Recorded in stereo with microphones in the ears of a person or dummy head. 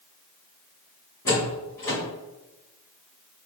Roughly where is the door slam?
Centre.